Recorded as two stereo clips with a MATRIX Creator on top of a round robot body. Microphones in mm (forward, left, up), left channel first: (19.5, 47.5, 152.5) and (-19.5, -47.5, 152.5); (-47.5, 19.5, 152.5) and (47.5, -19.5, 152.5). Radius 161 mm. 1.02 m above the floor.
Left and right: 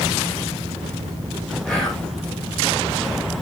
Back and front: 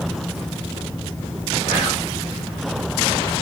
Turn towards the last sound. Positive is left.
turn(degrees=150)